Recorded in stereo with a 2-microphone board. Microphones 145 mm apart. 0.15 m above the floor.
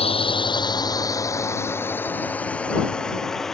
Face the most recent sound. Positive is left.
turn(degrees=0)  # may be behind; listen again after turning